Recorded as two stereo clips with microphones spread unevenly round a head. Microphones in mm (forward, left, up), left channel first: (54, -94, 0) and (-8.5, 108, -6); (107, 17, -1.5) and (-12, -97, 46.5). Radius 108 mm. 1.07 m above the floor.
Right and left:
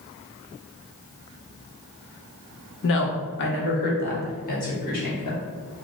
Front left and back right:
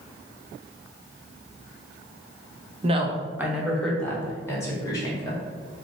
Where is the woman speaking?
80° right, 0.8 m; by 5.4 s 20° right, 2 m.